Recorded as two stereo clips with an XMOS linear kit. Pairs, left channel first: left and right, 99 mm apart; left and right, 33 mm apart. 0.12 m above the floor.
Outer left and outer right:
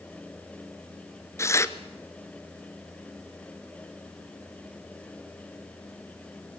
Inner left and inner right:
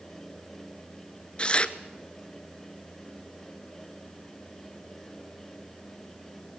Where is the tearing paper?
25° left (ahead or behind), 1.0 m.